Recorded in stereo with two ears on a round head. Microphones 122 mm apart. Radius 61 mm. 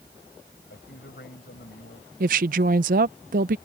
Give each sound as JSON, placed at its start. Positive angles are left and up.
{"t": 0.7, "sound": "a man speaking", "side_deg": 85}
{"t": 2.2, "sound": "a woman speaking", "side_deg": -65}